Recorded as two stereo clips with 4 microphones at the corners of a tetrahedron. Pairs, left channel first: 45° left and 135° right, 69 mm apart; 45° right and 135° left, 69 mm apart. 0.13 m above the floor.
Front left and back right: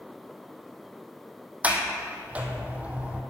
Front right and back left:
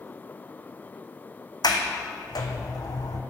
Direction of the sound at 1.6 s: 65° right.